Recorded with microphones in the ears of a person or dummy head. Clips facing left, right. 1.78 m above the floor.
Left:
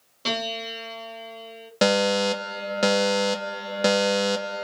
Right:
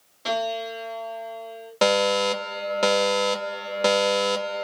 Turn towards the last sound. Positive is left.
turn(degrees=15)  # may be behind; listen again after turning